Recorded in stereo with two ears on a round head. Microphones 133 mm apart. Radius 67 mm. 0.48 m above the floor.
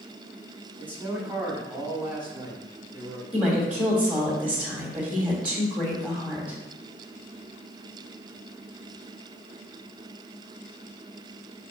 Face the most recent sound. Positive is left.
turn(degrees=-10)  # may be behind; listen again after turning